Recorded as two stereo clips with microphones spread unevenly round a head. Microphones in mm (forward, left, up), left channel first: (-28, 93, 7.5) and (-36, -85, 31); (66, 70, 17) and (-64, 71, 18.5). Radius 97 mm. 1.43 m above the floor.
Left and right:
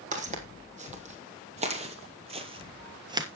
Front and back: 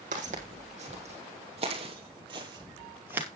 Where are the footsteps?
135° right, 3.5 m; by 3.3 s 115° right, 1.6 m.